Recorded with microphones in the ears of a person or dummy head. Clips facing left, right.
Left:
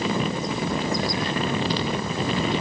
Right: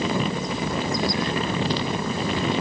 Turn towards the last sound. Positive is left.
No sound to turn to.